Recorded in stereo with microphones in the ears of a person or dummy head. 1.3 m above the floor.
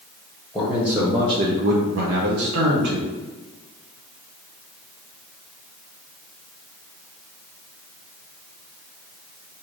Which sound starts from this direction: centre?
A man speaking, at 0.5 s.